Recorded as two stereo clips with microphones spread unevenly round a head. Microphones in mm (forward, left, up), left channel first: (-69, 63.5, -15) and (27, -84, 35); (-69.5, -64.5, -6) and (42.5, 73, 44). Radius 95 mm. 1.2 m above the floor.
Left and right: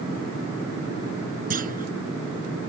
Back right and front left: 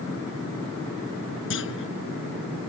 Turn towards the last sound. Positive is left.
turn(degrees=-100)